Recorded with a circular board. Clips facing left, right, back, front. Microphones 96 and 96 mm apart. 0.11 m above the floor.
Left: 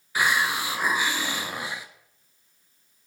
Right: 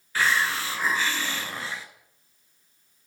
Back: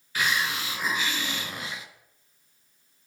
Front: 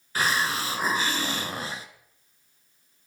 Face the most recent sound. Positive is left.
turn(degrees=20)